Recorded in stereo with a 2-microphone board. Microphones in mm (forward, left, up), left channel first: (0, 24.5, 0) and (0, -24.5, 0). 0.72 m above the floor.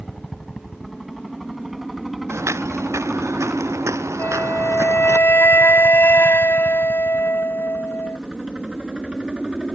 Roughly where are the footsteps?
Right.